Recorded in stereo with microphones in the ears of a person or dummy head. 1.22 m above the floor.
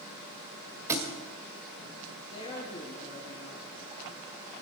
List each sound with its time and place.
0.9 s a thud: 15° right (ahead or behind), 1.8 m
2.3 s a woman speaking: 35° left (ahead or behind), 2.5 m